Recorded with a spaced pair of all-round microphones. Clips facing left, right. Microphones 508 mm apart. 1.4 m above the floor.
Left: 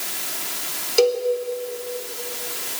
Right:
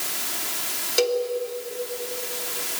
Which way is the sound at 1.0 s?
40° right (ahead or behind).